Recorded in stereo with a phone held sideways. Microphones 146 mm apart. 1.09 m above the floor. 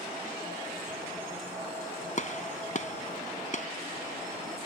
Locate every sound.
2.2 s a gunshot: 55° left (ahead or behind)